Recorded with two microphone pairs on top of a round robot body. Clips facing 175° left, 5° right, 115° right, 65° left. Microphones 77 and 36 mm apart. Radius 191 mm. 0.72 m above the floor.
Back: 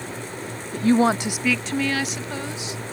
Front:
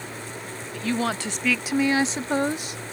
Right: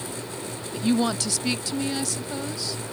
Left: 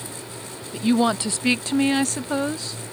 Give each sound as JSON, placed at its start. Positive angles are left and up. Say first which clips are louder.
{"t": 0.7, "sound": "a woman speaking", "louder": "back 8 dB, left 3 dB", "azimuth_deg": 130}